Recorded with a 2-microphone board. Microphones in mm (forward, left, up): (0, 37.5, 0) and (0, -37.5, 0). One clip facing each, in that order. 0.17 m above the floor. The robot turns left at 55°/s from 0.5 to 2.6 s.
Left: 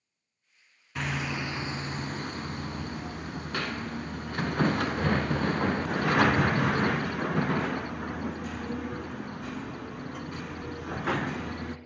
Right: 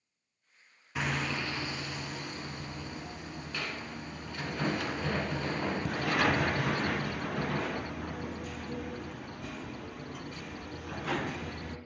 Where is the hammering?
175° right, 0.7 m; by 11.8 s 95° left, 0.7 m.